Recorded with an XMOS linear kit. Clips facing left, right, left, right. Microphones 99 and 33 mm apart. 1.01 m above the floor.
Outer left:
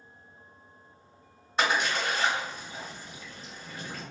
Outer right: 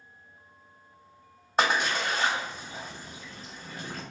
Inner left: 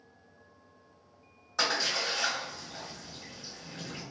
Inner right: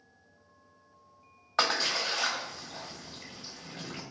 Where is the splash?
45° right (ahead or behind), 1.3 m.